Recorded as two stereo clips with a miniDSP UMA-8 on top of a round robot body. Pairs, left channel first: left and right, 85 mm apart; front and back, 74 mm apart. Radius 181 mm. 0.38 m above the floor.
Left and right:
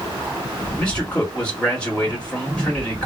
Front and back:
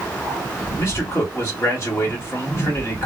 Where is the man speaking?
20° left, 1.7 m.